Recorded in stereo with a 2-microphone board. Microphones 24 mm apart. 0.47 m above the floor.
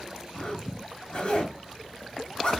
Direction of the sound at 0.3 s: 50° left (ahead or behind).